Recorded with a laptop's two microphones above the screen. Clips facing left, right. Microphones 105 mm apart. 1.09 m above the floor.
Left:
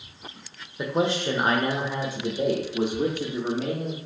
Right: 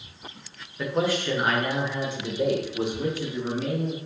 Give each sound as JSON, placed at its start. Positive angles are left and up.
{"t": 0.8, "sound": "a man speaking", "side_deg": 20, "distance_m": 0.8}